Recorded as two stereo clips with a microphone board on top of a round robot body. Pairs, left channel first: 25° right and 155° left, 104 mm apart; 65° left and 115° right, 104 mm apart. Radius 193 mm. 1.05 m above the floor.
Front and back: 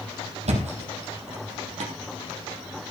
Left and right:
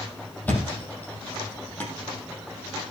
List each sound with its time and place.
0.5 s a thud: 145° left, 3.5 m